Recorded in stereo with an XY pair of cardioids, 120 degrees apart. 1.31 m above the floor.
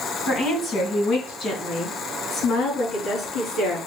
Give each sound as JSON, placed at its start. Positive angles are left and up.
{"t": 0.3, "sound": "a woman speaking", "azimuth_deg": 70, "distance_m": 2.5}